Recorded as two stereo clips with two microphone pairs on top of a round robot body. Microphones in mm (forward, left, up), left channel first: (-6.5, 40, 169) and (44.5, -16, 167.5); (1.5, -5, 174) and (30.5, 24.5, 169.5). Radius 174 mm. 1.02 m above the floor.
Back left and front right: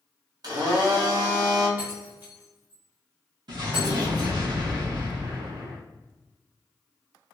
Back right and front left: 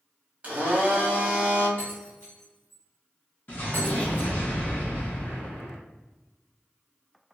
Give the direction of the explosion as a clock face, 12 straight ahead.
3 o'clock.